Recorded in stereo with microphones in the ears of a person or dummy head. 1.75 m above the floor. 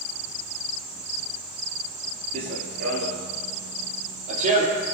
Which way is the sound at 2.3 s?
30° right (ahead or behind).